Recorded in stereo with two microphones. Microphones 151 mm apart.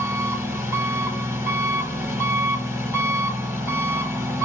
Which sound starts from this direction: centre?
An engine running, at 0.0 s.